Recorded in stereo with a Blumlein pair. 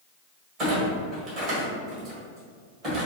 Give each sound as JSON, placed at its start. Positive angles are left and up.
{"t": 0.6, "sound": "a clunk", "azimuth_deg": -35, "distance_m": 1.6}